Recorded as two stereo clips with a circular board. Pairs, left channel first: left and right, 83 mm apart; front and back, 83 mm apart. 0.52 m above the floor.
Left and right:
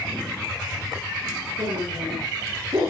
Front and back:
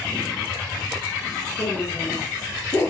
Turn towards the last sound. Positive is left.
turn(degrees=-55)